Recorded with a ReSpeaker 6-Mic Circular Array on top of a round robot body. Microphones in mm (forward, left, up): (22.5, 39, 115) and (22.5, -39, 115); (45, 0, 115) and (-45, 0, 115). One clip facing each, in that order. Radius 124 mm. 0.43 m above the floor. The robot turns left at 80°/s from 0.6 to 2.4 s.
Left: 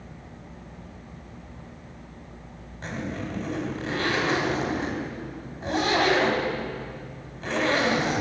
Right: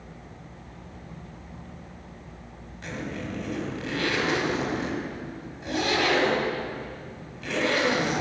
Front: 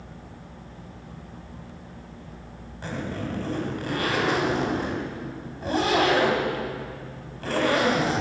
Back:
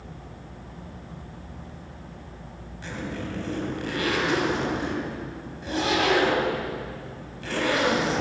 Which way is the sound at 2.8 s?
40° left.